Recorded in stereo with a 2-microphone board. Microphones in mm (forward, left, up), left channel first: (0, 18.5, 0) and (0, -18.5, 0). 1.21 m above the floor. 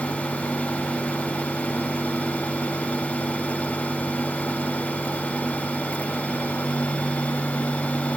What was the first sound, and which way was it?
Only background noise.